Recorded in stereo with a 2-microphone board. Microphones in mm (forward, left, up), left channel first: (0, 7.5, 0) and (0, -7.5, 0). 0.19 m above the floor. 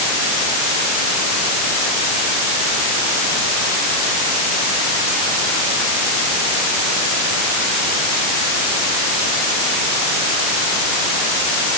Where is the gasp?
I don't hear a gasp.